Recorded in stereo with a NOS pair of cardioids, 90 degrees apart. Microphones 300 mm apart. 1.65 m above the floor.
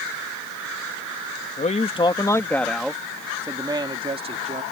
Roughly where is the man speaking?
Ahead left.